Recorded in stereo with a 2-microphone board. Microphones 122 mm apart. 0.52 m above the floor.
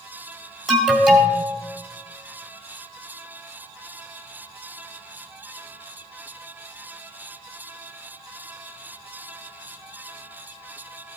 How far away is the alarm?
About 1.7 m.